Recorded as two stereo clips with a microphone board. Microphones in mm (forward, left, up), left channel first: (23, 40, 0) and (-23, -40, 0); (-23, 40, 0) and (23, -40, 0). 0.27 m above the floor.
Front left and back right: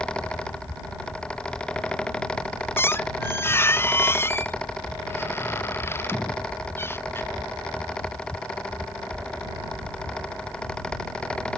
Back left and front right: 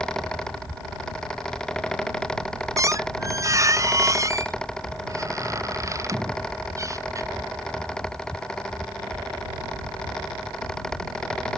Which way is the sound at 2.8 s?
5° right.